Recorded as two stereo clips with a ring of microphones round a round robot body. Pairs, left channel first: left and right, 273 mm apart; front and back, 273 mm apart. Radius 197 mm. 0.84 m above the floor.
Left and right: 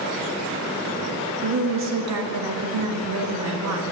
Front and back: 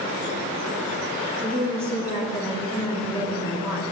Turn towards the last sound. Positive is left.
turn(degrees=-75)